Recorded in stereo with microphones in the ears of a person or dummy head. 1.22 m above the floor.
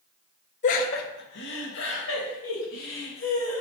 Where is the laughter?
40° left (ahead or behind), 0.5 m; by 3.6 s 85° left, 2 m.